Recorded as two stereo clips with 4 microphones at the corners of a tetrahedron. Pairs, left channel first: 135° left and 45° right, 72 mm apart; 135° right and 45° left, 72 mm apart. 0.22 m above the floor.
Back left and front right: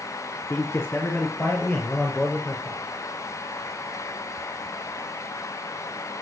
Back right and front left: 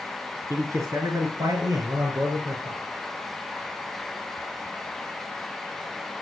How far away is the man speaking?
About 3.5 m.